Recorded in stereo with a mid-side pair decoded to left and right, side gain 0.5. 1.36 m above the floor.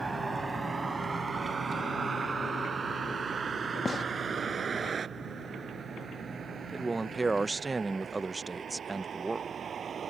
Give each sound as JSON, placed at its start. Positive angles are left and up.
{"t": 0.0, "sound": "a vehicle", "azimuth_deg": -20}
{"t": 3.9, "sound": "a gunshot", "azimuth_deg": 30}
{"t": 6.7, "sound": "a man speaking", "azimuth_deg": -20}